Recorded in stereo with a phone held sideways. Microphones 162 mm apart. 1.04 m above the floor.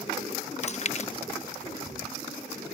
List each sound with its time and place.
0.6 s chewing: 45° left (ahead or behind)